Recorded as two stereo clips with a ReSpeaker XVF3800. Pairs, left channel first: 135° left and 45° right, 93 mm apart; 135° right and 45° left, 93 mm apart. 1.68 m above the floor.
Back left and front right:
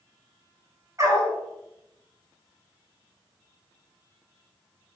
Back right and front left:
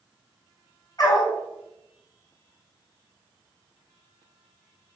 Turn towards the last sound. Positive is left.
turn(degrees=-95)